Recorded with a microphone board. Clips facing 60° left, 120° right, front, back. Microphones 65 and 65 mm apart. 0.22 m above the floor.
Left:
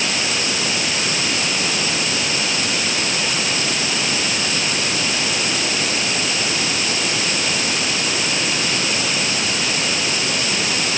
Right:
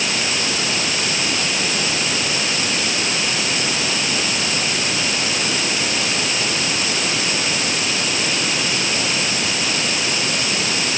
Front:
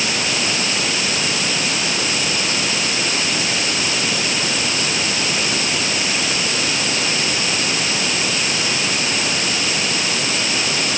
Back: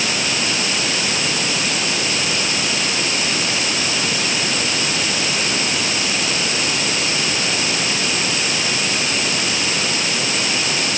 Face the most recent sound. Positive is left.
No sound to turn to.